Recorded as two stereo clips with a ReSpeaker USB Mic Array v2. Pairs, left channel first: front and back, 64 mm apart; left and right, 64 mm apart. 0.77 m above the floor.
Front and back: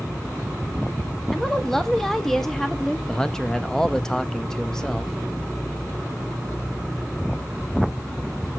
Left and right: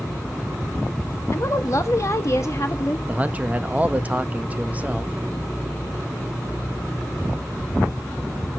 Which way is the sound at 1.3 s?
80° left.